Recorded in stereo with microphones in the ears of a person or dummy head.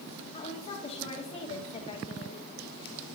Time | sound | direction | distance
0.3 | a woman speaking | 25° left (ahead or behind) | 1.9 m